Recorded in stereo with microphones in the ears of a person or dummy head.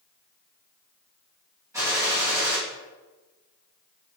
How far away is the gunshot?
About 2.5 m.